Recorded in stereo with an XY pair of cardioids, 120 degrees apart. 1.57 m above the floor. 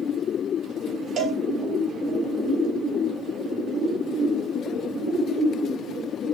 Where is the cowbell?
55° right, 0.7 m.